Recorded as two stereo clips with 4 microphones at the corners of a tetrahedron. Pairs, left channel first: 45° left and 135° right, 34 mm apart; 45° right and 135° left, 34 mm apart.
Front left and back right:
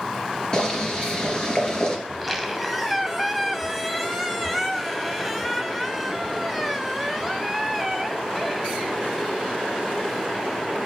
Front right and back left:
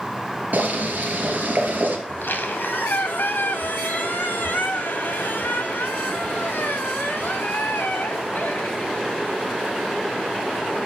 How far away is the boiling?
About 3 m.